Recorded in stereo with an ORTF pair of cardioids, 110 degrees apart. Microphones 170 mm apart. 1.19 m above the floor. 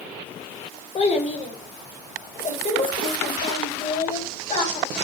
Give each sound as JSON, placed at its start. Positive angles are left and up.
{"t": 0.9, "sound": "a child speaking", "azimuth_deg": 40, "distance_m": 3.0}